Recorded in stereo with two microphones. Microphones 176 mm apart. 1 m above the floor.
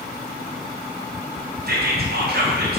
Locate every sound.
1.7 s whispering: 65° right (ahead or behind), 0.5 m